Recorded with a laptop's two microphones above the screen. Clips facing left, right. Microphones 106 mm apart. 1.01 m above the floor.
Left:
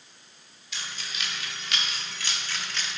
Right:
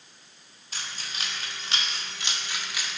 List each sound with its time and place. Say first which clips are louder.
0.7 s keys jangling: even; 40° right (ahead or behind), 2.0 m; by 3.0 s 5° right (ahead or behind), 1.2 m